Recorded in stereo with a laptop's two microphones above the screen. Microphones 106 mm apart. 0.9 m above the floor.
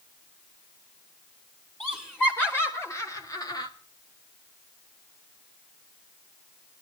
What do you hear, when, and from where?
1.8 s laughter: 15° left (ahead or behind), 3.5 m; by 3.7 s 45° left (ahead or behind), 1.9 m